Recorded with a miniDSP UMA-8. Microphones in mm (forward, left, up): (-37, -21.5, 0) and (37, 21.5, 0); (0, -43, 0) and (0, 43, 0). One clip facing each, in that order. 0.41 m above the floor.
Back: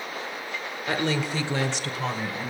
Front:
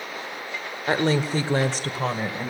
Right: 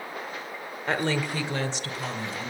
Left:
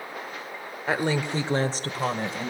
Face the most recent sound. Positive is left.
turn(degrees=75)